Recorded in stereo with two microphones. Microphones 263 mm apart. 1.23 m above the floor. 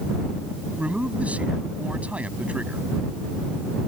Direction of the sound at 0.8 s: 5° right (ahead or behind).